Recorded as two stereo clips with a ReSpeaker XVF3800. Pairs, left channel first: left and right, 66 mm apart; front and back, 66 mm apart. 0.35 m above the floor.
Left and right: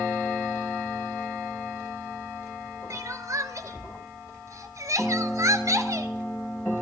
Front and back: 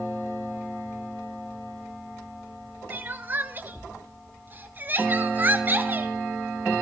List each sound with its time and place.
2.9 s crying: 120° right, 0.8 m